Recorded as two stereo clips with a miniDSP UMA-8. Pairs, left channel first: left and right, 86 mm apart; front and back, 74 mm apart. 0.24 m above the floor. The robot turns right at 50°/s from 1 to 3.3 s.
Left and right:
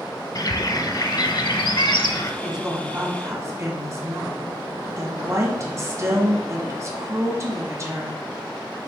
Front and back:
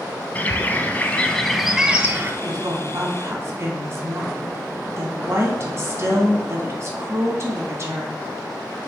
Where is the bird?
65° left, 0.7 m; by 2.3 s 130° left, 0.7 m.